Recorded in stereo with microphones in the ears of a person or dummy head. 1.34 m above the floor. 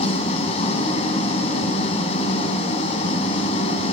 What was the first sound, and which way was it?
An engine running, 40° left (ahead or behind).